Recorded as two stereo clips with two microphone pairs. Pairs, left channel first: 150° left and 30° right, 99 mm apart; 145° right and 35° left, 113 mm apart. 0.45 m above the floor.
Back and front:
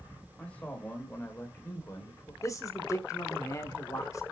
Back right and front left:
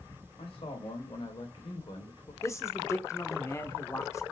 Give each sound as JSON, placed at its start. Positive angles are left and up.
{"t": 0.4, "sound": "a man speaking", "azimuth_deg": -135, "distance_m": 2.5}
{"t": 2.4, "sound": "a man speaking", "azimuth_deg": 175, "distance_m": 1.0}